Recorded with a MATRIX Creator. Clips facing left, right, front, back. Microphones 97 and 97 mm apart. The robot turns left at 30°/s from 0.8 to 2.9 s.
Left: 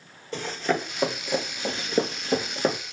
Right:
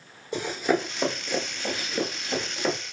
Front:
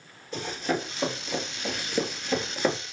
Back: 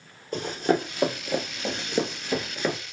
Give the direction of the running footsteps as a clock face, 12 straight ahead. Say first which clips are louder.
Right 2 dB, back 5 dB; 5 o'clock.